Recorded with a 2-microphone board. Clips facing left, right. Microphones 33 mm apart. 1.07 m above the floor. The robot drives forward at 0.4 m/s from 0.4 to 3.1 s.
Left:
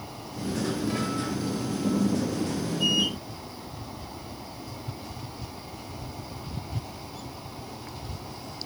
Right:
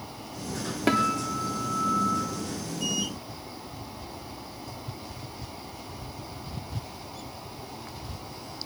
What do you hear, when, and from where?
0.9 s a guitar: 75° right (ahead or behind), 3.5 m; by 2.2 s 70° right (ahead or behind), 3.5 m